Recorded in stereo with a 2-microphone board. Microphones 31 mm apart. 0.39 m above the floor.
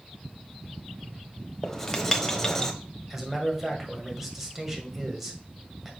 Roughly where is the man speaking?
Centre.